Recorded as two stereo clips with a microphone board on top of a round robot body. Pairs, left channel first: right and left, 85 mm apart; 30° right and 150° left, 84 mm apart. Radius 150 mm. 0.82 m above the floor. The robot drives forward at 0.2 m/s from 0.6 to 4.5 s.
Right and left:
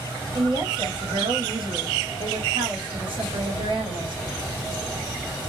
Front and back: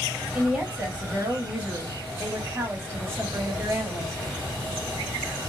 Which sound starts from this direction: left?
A woman speaking, at 0.3 s.